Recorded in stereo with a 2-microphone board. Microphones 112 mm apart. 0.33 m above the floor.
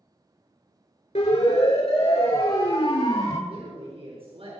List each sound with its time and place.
1.1 s a siren: 75° left (ahead or behind), 5.5 m; by 3.4 s 60° left (ahead or behind), 6 m
3.5 s a woman speaking: 55° right (ahead or behind), 5 m